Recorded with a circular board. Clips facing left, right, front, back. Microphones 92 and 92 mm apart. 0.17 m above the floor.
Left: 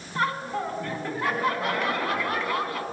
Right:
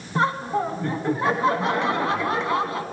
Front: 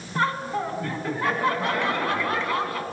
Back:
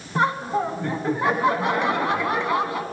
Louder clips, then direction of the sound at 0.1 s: Right 5 dB, back 3 dB; 130° right.